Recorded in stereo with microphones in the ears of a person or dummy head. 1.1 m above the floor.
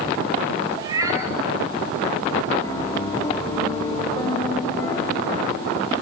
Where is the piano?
10° left (ahead or behind), 1.3 m.